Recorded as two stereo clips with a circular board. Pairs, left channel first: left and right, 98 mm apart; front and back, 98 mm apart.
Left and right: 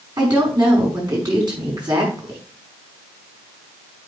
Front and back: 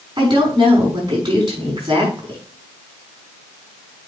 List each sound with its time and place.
0.2 s a woman speaking: 135° right, 5 m